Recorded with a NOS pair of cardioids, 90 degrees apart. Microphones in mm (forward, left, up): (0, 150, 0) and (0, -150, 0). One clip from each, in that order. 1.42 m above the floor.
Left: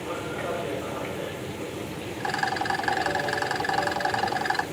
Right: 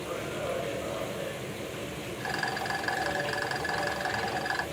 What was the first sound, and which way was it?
A machine running, 30° left.